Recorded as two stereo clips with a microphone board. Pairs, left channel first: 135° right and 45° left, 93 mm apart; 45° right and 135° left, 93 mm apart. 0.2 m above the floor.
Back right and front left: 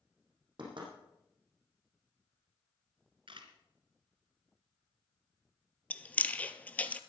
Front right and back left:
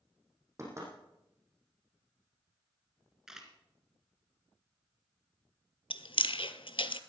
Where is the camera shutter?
50° left, 2 m.